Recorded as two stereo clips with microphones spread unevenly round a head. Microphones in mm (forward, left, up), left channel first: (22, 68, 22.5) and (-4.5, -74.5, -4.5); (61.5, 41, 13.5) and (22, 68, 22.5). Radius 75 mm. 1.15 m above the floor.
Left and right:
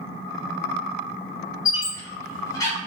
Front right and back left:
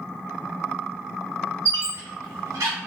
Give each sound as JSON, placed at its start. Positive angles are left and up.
{"t": 1.6, "sound": "a squeak", "azimuth_deg": 150, "distance_m": 0.8}